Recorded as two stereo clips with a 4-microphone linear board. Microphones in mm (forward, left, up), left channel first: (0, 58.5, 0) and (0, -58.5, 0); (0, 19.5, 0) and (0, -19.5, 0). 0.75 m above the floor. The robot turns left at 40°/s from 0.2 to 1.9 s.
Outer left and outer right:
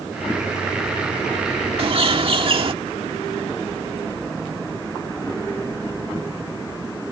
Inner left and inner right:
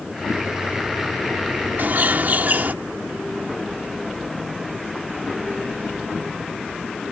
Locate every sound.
1.8 s a bird: 55° right (ahead or behind); by 2.7 s 50° right (ahead or behind)